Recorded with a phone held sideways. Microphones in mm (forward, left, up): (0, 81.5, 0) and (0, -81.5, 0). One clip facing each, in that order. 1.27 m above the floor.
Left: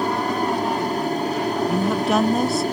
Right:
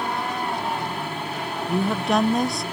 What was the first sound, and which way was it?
An aircraft, 40° left (ahead or behind).